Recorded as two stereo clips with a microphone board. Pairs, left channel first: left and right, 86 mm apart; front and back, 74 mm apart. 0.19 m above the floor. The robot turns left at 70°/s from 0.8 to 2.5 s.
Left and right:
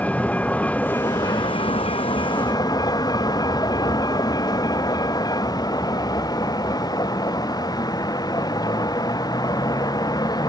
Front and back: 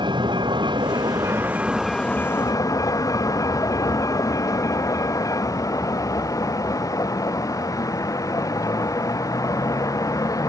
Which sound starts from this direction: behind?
A vehicle, at 0.0 s.